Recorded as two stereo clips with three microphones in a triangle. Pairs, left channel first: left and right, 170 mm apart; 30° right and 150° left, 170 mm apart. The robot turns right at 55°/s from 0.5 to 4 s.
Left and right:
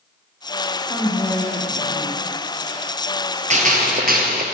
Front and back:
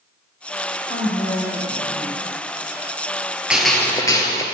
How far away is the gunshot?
About 1.8 m.